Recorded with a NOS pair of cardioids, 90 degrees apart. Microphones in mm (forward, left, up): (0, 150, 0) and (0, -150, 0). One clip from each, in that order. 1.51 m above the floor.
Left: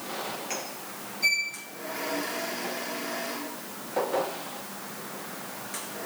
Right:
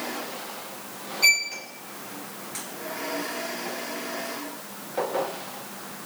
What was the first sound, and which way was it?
A violin, 50° right.